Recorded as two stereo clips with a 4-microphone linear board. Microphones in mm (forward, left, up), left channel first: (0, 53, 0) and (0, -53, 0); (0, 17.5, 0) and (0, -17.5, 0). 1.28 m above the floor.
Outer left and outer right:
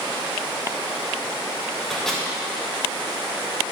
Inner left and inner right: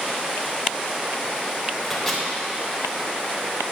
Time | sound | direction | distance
1.8 | a microwave | 5° left (ahead or behind) | 2.5 m